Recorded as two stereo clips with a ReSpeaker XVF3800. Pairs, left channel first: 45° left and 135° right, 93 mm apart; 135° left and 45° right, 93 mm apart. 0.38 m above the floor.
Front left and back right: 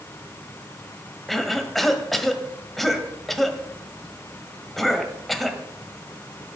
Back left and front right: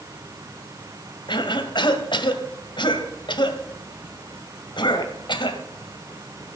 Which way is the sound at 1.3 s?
135° left.